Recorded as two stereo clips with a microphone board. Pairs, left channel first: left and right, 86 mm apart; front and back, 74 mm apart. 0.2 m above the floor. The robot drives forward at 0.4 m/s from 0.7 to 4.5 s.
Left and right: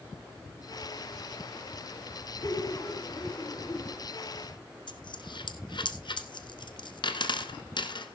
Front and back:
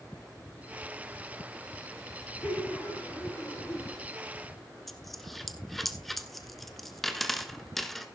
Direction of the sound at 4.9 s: 90° left.